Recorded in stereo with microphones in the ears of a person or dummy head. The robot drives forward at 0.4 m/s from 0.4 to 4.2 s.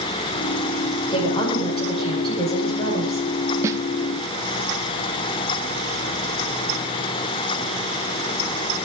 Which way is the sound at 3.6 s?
20° right (ahead or behind).